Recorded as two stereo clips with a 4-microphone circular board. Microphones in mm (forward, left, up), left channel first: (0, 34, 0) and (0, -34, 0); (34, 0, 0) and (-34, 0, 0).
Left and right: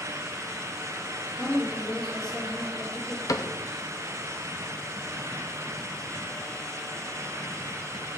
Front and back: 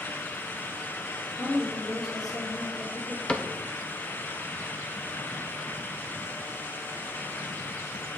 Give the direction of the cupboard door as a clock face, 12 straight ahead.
10 o'clock.